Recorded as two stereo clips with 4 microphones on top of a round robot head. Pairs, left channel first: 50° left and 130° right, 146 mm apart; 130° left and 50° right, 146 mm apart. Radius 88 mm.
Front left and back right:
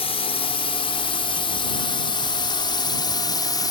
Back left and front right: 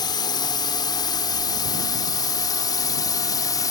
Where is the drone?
80° left; by 3.7 s 85° left.